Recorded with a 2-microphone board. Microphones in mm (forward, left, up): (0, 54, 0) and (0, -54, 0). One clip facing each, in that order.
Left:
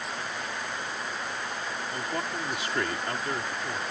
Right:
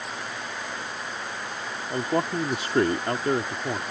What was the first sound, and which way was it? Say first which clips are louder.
A man speaking: right 10 dB; 35° right (ahead or behind).